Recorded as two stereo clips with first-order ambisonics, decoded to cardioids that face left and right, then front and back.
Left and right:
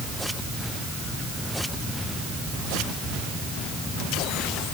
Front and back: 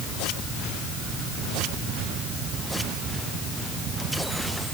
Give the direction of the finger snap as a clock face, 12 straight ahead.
No finger snap in this recording.